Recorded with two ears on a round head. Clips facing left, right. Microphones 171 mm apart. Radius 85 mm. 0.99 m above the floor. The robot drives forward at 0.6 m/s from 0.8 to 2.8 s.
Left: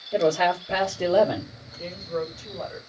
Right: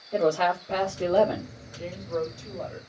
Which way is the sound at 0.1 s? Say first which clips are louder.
Left 2 dB; 10° left (ahead or behind).